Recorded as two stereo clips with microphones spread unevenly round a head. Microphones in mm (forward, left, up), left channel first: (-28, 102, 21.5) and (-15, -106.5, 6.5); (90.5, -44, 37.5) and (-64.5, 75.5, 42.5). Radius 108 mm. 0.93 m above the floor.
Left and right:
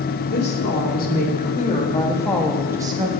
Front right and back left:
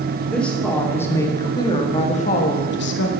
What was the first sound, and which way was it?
A woman speaking, 50° left.